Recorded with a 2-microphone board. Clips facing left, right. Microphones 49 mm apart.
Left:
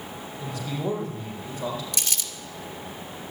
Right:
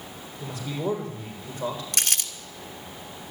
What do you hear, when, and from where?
0.4 s a man speaking: 20° right (ahead or behind), 8 m
1.9 s crumpling: 60° right (ahead or behind), 1.3 m